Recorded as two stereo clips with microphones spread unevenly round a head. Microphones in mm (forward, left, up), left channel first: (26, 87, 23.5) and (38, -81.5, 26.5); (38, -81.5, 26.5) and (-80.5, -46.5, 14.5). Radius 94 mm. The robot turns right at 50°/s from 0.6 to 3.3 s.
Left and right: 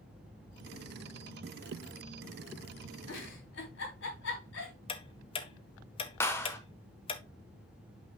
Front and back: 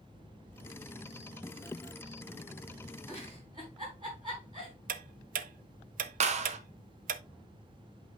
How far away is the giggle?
About 4 m.